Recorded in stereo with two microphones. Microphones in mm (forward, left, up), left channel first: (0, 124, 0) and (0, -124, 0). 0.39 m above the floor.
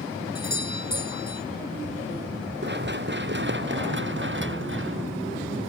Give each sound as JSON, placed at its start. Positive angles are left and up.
{"t": 0.3, "sound": "a doorbell", "side_deg": 35}
{"t": 2.6, "sound": "running footsteps", "side_deg": -40}